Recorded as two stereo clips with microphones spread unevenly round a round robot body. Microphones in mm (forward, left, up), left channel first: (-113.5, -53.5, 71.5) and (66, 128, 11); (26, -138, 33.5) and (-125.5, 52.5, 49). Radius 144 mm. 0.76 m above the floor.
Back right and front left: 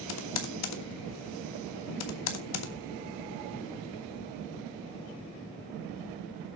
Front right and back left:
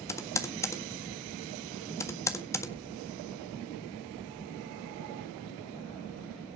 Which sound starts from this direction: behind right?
Typing on a keyboard, at 0.1 s.